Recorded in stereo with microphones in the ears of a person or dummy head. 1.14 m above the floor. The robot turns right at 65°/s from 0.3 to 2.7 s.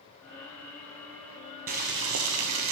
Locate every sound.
1.7 s boiling: 135° right, 0.8 m; by 2.7 s 70° right, 0.8 m